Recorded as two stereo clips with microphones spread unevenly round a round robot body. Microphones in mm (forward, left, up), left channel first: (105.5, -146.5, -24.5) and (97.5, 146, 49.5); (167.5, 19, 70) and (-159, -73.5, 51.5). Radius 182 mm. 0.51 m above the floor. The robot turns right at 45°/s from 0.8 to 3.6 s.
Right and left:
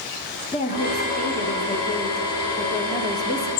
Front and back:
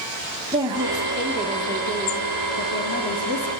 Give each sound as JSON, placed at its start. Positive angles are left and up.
{"t": 0.5, "sound": "a woman speaking", "azimuth_deg": -105, "distance_m": 1.2}